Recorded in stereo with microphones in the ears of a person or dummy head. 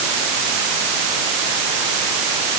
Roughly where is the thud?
I don't hear a thud.